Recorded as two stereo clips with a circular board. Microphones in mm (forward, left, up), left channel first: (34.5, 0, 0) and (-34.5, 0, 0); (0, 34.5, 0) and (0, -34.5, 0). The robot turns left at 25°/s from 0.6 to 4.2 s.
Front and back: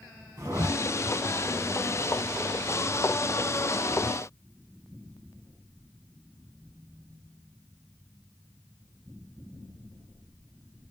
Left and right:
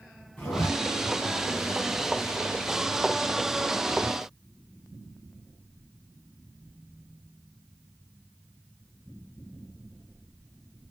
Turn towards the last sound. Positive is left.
turn(degrees=65)